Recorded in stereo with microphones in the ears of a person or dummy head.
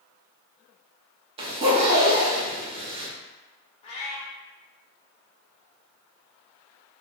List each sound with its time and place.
1.4 s a zipper: 20° right (ahead or behind), 0.6 m
3.8 s a cat meowing: 35° left (ahead or behind), 0.6 m